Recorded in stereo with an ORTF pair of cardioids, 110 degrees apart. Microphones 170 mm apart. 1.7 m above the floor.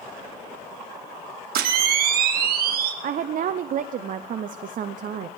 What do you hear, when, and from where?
1.6 s a camera shutter: 65° right, 1.8 m
3.0 s a woman speaking: 50° right, 0.7 m